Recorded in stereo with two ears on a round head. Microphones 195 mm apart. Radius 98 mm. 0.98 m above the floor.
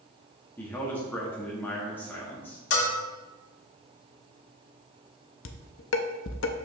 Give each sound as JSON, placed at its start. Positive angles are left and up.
{"t": 0.6, "sound": "a man speaking", "side_deg": 10, "distance_m": 1.2}
{"t": 2.7, "sound": "a bell", "side_deg": 70, "distance_m": 1.5}
{"t": 5.5, "sound": "dishes clattering", "side_deg": 65, "distance_m": 0.6}